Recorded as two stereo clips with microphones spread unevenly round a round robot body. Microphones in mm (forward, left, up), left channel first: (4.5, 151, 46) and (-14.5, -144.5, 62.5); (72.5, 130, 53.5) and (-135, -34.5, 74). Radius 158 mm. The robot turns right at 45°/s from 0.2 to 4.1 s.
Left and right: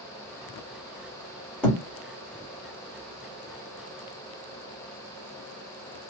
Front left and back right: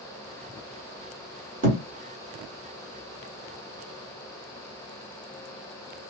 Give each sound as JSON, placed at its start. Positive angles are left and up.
{"t": 1.6, "sound": "a thud", "azimuth_deg": 170, "distance_m": 1.5}